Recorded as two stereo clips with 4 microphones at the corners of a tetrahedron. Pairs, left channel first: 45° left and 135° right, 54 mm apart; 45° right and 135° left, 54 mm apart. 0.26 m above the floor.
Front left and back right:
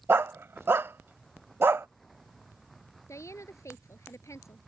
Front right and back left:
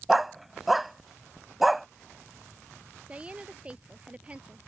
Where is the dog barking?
140° right.